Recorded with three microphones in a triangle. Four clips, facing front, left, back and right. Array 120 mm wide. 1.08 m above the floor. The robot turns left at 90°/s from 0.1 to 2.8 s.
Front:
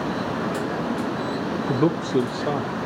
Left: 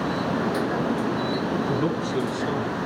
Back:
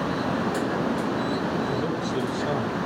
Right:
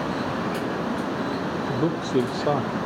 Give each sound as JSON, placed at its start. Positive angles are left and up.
{"t": 1.7, "sound": "a man speaking", "azimuth_deg": 0, "distance_m": 0.6}